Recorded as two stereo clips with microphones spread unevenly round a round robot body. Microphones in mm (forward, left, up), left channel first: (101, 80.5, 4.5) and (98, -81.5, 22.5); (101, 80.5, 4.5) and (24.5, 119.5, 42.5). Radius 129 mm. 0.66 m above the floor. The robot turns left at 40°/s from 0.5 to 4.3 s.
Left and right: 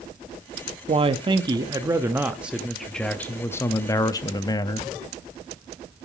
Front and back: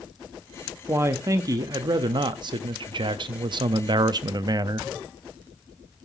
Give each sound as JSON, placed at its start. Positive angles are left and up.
{"t": 0.9, "sound": "a man speaking", "azimuth_deg": -120, "distance_m": 0.5}